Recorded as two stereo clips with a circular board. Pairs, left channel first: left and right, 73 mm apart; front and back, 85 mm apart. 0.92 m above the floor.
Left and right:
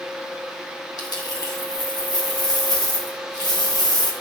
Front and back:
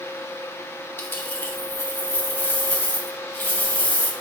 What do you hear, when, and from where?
1.0 s a dropped coin: 65° left, 1.9 m